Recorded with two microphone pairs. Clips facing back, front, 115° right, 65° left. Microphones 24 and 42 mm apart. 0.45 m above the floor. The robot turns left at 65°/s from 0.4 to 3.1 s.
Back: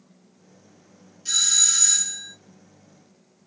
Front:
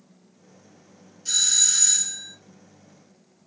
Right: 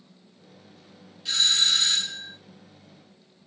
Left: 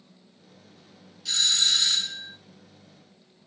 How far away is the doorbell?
About 1.4 m.